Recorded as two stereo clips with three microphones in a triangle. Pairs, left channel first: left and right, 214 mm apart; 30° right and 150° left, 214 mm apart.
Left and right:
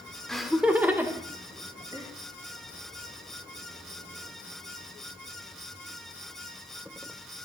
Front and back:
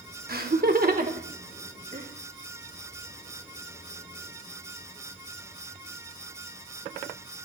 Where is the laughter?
175° left, 1.0 m; by 2.1 s 160° right, 2 m.